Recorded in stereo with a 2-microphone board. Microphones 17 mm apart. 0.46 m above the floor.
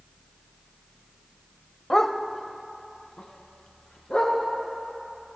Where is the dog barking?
25° left (ahead or behind), 0.6 m; by 4.4 s 85° left, 2.5 m.